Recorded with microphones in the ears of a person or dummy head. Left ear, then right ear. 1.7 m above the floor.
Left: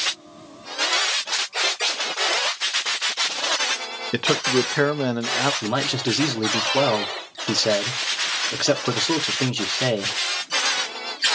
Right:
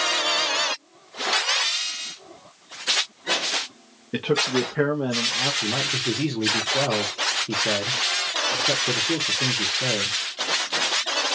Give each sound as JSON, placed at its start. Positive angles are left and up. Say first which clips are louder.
{"t": 4.1, "sound": "a man speaking", "louder": "left 2 dB", "side_deg": 40, "distance_m": 0.7}
{"t": 5.6, "sound": "a man speaking", "louder": "left 1 dB", "side_deg": 60, "distance_m": 1.0}